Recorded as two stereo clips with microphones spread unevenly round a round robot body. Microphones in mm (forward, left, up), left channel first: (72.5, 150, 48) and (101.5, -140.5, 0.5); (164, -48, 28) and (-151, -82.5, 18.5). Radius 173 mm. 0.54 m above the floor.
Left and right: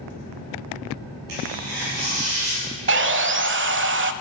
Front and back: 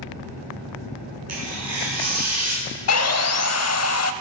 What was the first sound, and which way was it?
Tearing paper, 140° right.